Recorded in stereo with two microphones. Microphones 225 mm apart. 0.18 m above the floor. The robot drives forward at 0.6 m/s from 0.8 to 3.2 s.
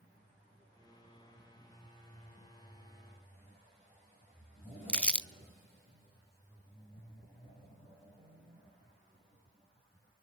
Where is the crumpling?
5° left (ahead or behind), 0.5 m.